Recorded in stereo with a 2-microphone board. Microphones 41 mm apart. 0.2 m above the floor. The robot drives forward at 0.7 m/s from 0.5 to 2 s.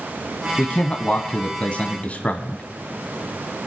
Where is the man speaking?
25° left (ahead or behind), 1.4 m; by 2.6 s 30° left (ahead or behind), 1.2 m.